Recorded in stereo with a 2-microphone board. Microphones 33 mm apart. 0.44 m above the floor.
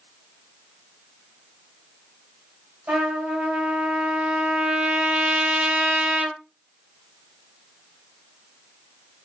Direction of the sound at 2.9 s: 55° right (ahead or behind).